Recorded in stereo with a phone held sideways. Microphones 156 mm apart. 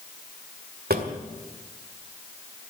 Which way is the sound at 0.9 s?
85° right.